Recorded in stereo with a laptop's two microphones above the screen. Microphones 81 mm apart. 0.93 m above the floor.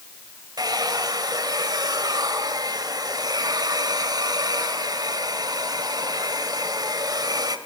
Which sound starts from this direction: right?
A hair dryer, at 0.6 s.